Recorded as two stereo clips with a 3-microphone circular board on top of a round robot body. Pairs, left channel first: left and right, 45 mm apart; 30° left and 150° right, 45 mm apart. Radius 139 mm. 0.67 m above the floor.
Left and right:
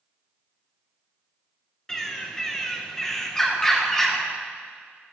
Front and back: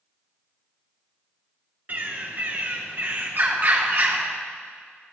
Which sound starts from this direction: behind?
A bird, at 1.9 s.